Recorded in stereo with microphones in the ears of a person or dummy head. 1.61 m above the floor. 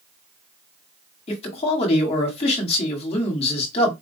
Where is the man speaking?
35° left (ahead or behind), 1.6 m.